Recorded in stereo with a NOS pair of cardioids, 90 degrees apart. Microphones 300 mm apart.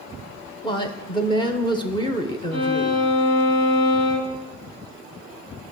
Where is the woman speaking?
15° left, 1.1 m.